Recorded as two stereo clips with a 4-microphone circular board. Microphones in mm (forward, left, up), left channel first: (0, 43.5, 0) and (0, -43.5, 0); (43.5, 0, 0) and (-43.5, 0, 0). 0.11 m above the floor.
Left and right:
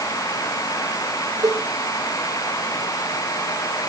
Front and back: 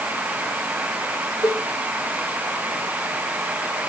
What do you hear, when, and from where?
1.4 s a cowbell: 55° right, 7 m